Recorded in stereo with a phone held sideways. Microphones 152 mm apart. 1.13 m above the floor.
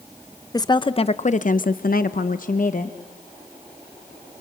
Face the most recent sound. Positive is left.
turn(degrees=50)  # may be behind; listen again after turning